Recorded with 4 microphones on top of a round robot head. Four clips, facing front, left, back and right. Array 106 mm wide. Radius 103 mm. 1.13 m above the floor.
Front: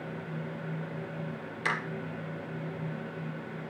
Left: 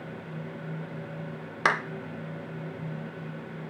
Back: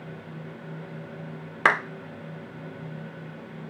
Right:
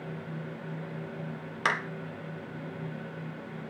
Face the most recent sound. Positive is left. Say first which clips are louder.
# left 4 dB, back 10 dB
turn(degrees=160)